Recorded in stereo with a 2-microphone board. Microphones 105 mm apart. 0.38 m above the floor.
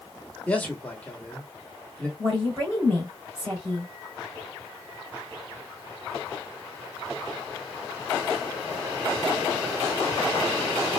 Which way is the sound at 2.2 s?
30° right (ahead or behind).